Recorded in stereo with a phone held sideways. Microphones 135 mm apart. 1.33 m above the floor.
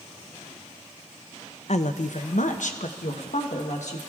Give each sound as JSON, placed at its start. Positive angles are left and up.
{"t": 1.7, "sound": "a woman speaking", "side_deg": 60, "distance_m": 0.6}